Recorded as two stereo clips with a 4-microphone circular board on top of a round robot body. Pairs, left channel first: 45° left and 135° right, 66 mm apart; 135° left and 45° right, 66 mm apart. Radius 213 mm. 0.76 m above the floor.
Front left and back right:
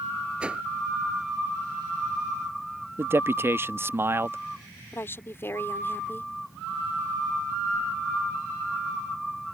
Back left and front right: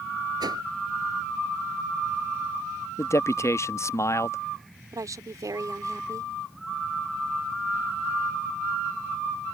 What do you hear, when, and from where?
0.4 s a whoosh: 60° right
3.0 s a man speaking: 175° left
4.9 s a woman speaking: 10° right